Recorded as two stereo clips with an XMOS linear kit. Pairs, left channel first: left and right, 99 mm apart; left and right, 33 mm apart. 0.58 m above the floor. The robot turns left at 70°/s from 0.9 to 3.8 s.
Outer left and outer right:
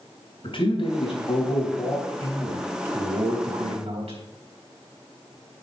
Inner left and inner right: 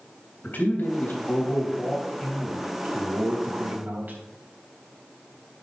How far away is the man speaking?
About 3.5 m.